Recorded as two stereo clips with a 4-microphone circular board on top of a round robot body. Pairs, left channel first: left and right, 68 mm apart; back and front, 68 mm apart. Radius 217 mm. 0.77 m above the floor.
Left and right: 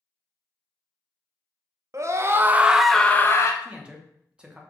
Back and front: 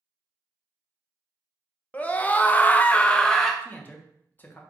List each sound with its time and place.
1.9 s a scream: 115° right, 0.8 m; by 3.5 s 100° left, 0.7 m
3.6 s a man speaking: 150° right, 1.0 m